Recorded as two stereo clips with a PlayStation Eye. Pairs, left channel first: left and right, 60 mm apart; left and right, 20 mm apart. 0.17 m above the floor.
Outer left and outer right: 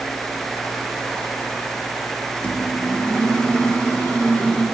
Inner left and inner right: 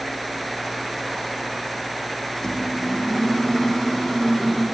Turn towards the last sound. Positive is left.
turn(degrees=20)  # may be behind; listen again after turning